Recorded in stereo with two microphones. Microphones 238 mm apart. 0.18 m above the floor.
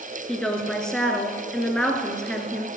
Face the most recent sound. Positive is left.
turn(degrees=5)  # may be behind; listen again after turning